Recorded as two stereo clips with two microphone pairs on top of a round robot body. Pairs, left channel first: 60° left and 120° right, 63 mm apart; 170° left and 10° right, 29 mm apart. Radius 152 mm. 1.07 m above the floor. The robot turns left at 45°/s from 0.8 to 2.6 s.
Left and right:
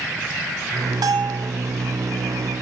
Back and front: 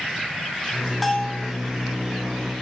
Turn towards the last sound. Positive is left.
turn(degrees=180)